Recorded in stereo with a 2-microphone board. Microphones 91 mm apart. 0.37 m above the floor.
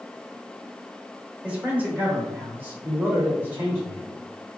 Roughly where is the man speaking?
Centre.